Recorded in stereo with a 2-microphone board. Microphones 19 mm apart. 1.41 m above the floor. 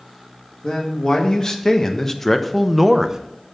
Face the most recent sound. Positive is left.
turn(degrees=-30)  # may be behind; listen again after turning